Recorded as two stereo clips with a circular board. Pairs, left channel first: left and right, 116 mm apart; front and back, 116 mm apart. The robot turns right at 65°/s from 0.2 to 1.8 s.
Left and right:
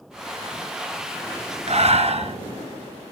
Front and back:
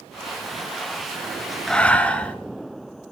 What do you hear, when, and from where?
1.7 s breathing: 85° right, 1.1 m; by 2.4 s 80° right, 1.1 m